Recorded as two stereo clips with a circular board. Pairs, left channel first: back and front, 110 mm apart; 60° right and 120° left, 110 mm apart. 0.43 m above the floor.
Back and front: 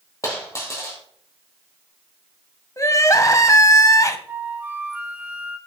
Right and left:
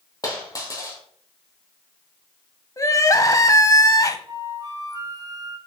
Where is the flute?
70° left, 1.6 m.